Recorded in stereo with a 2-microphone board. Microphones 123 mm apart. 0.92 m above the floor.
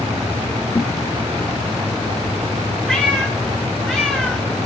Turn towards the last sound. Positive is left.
turn(degrees=5)  # may be behind; listen again after turning